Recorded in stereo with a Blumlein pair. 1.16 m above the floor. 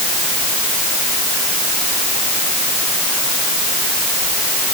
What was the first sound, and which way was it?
Only background noise.